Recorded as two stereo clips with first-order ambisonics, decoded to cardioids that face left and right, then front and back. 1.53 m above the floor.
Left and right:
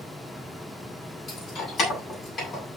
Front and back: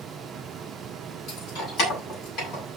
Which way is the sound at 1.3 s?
35° left.